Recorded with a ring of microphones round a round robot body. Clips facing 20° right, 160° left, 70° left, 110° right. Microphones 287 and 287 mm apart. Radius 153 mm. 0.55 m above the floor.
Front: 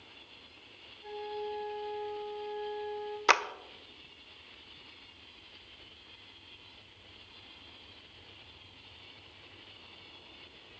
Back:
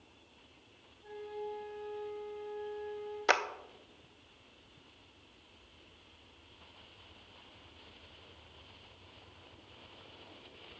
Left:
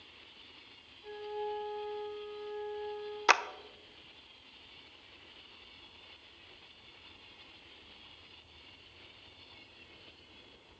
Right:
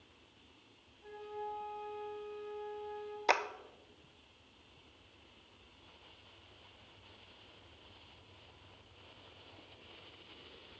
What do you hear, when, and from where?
1.0 s a flute: 70° right, 4.5 m
3.3 s a clap: 35° left, 0.6 m